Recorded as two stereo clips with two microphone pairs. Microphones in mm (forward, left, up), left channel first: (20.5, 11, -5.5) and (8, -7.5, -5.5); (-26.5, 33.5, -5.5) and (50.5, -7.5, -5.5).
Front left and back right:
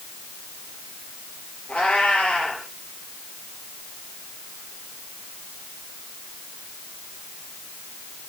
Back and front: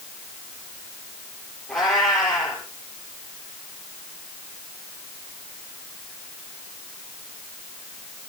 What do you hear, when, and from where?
1.7 s a cat meowing: 70° left, 8 m